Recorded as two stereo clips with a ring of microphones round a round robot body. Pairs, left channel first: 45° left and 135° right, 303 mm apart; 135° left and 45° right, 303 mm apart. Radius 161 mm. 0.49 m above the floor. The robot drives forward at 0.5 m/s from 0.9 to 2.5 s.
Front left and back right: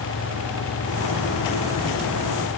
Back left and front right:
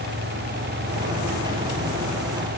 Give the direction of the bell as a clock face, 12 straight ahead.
No bell in this recording.